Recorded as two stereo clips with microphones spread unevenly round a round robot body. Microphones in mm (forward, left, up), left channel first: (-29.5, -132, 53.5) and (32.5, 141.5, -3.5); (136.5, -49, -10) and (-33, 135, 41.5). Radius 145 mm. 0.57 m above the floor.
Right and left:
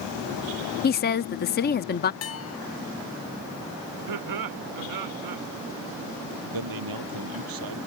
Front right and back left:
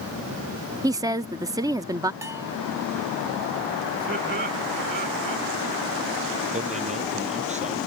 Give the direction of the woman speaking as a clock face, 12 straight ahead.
5 o'clock.